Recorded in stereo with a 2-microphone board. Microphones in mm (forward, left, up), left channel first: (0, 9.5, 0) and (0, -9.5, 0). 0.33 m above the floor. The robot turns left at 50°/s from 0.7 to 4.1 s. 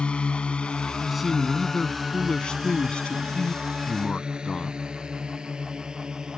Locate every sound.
0.0 s a drone: 65° left (ahead or behind); by 6.4 s 40° right (ahead or behind)
1.0 s a man speaking: 165° right; by 4.8 s 40° left